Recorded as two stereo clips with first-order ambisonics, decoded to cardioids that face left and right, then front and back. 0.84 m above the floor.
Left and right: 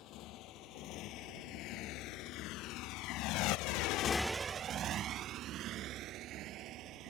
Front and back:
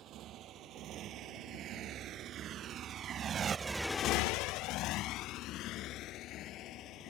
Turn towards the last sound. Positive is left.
turn(degrees=-45)